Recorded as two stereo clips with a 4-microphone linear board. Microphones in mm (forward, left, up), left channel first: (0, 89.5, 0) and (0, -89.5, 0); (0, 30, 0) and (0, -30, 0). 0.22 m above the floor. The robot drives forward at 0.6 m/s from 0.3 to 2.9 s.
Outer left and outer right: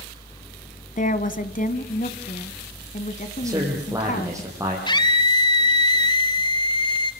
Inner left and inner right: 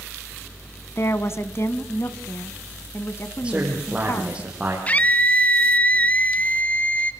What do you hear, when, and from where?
1.0 s a woman speaking: 50° left (ahead or behind), 1.6 m; by 4.4 s 45° left (ahead or behind), 1.8 m
3.4 s a man speaking: 20° right (ahead or behind), 7.5 m
4.9 s a scream: 25° left (ahead or behind), 1.8 m